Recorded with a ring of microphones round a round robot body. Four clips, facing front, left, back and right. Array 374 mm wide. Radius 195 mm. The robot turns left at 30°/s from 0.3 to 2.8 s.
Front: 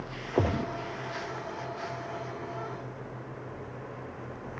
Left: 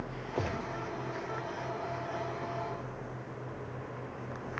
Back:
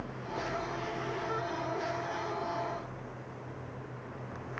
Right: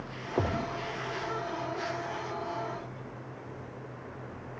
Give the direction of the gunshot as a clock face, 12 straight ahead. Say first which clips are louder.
Right 5 dB, front 7 dB; 12 o'clock.